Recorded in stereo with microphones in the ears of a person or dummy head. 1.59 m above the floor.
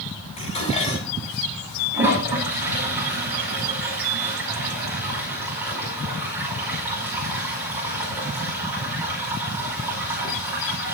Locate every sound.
0.4 s dishes clattering: 35° left (ahead or behind), 8.5 m
1.9 s a toilet flushing: 10° right (ahead or behind), 5 m